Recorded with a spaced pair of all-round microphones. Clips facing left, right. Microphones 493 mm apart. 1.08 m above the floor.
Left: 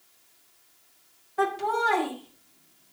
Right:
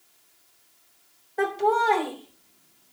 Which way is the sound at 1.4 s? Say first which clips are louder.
Right 4 dB; 25° left (ahead or behind).